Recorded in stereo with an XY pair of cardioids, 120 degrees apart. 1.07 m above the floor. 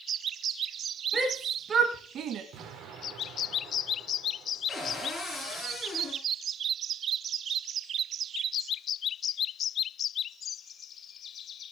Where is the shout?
15° right, 2 m; by 2.4 s 70° right, 1.7 m.